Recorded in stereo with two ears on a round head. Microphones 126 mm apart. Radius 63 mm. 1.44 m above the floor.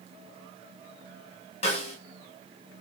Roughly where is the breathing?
No breathing in this recording.